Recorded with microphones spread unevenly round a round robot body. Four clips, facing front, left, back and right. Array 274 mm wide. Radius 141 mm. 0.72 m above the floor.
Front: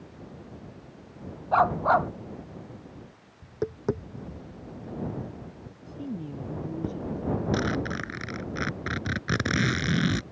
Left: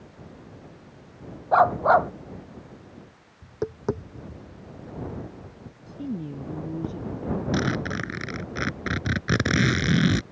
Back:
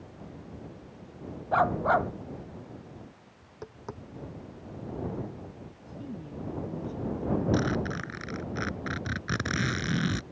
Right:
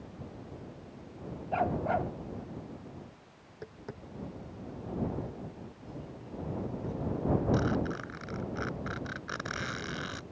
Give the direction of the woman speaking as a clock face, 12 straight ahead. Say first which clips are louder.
Left 11 dB, front 4 dB; 10 o'clock.